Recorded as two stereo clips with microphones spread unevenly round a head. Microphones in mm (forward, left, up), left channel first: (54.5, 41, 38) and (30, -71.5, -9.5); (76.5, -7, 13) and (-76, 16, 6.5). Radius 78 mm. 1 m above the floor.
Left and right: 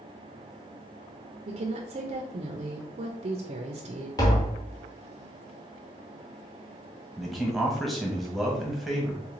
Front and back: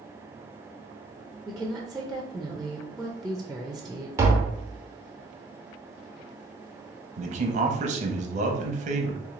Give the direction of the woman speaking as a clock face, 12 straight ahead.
3 o'clock.